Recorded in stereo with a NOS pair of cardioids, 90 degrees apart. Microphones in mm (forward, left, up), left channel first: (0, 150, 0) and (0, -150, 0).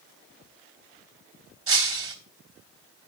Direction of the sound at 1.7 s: 45° right.